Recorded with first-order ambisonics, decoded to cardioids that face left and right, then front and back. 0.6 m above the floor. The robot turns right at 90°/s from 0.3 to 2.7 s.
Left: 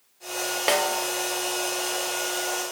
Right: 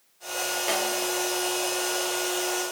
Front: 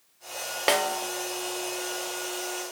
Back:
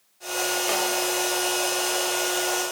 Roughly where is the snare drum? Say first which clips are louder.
Left 6 dB, even; ahead left.